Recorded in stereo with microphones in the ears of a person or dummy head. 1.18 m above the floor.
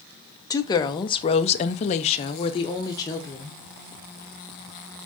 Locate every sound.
0.5 s a woman speaking: 20° left (ahead or behind), 1.0 m; by 3.6 s 15° left (ahead or behind), 1.2 m